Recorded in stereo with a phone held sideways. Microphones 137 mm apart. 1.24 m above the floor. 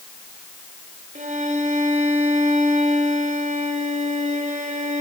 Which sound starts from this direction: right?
A violin, at 1.1 s.